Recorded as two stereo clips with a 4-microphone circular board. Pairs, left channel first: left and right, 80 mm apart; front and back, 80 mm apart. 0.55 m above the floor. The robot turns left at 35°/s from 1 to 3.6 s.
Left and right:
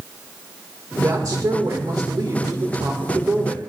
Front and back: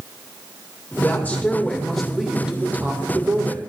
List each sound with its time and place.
1.0 s a woman speaking: 55° right, 1.7 m; by 3.6 s 145° right, 1.7 m